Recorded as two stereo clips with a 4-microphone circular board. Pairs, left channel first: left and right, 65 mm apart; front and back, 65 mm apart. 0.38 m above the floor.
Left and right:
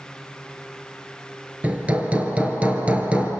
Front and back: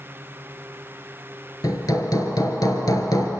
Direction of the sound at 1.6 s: 20° right.